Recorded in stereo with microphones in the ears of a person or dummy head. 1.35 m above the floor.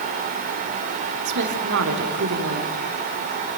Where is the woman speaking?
60° right (ahead or behind), 3.5 m.